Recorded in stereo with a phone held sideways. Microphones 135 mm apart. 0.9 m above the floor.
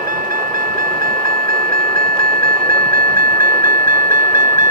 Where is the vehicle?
75° right (ahead or behind); by 4.7 s 65° right (ahead or behind).